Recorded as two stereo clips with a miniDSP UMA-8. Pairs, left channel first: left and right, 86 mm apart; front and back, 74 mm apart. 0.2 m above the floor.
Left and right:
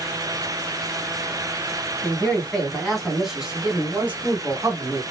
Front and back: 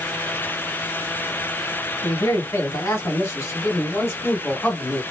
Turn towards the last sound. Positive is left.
turn(degrees=-55)